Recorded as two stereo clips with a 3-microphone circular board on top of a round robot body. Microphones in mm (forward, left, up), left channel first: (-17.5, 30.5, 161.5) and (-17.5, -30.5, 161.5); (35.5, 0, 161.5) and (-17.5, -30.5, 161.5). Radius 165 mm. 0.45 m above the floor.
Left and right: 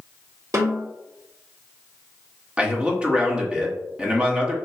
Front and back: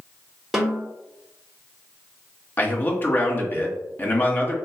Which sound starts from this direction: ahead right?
A snare drum, at 0.5 s.